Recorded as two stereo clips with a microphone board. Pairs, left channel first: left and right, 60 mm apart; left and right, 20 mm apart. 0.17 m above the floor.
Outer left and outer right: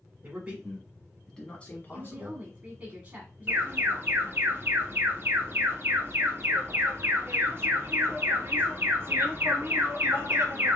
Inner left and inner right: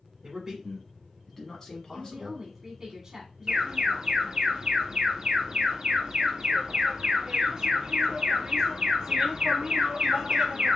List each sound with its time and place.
0.2 s a man speaking: 25° right (ahead or behind), 1.6 m; by 2.4 s 45° left (ahead or behind), 1.7 m
1.9 s a woman speaking: 25° right (ahead or behind), 1.1 m
3.5 s an alarm: 40° right (ahead or behind), 0.9 m